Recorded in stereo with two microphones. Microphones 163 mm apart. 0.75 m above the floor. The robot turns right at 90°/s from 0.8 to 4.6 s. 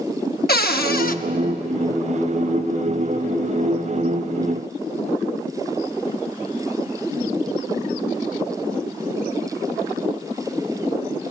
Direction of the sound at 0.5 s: 85° left.